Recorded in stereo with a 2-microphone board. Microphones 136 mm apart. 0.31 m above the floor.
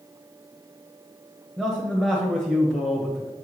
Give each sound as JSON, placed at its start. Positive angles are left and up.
{"t": 1.6, "sound": "a man speaking", "side_deg": 5, "distance_m": 1.1}